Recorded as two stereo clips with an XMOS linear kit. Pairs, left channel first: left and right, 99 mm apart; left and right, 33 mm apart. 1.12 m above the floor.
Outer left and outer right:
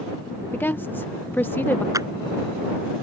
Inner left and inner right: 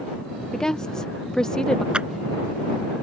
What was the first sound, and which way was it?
A woman speaking, 20° left (ahead or behind).